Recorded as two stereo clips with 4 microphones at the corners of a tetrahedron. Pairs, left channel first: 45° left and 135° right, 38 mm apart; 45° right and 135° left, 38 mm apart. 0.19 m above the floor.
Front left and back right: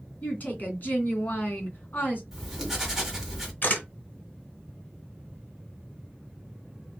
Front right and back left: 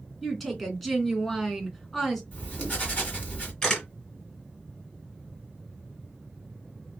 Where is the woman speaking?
35° left, 2 m.